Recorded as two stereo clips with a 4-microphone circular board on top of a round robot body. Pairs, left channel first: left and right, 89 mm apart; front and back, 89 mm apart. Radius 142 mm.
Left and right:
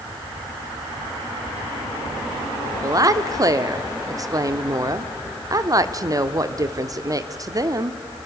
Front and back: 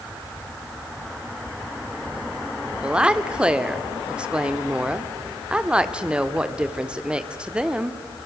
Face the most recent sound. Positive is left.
turn(degrees=-105)